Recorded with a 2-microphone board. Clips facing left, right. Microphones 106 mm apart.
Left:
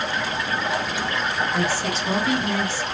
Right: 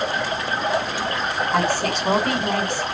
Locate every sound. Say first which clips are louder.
0.0 s running water: right 2 dB; 45° right (ahead or behind), 4.5 m
1.5 s a woman speaking: right 3 dB; 65° right (ahead or behind), 2.5 m